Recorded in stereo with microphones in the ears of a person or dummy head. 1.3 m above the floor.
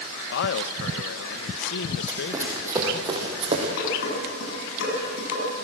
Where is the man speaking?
55° left (ahead or behind), 0.8 m.